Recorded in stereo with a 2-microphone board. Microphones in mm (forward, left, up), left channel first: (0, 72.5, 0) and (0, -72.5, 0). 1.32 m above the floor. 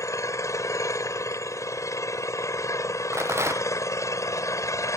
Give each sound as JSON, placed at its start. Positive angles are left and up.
{"t": 0.0, "sound": "an engine running", "side_deg": 20}
{"t": 3.1, "sound": "a rattle", "side_deg": -15}